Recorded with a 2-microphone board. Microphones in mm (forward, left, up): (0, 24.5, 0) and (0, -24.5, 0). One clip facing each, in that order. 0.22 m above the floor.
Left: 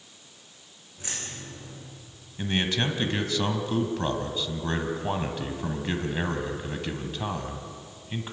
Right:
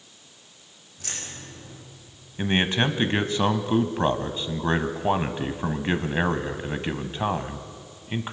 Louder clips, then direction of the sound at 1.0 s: Even; 20° left (ahead or behind).